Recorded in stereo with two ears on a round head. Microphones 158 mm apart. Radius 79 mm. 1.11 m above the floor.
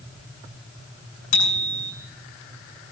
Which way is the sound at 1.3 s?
75° left (ahead or behind).